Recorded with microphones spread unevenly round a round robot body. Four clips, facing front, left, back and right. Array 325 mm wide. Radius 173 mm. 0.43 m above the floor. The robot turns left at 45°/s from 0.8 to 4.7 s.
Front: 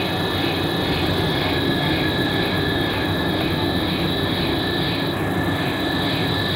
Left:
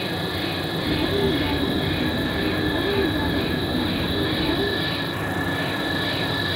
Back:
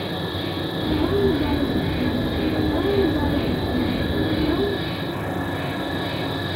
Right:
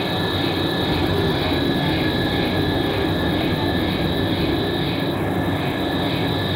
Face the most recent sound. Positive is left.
turn(degrees=115)